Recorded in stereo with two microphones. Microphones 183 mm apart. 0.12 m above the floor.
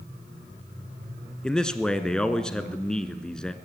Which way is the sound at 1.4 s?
5° left (ahead or behind).